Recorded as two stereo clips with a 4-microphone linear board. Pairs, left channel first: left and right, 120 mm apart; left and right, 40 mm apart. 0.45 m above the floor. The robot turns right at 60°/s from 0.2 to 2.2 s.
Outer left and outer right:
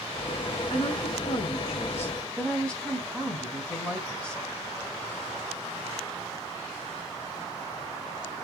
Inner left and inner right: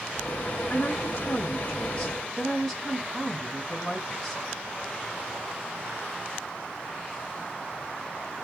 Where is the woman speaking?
80° left, 3 m; by 4.4 s 170° left, 3 m.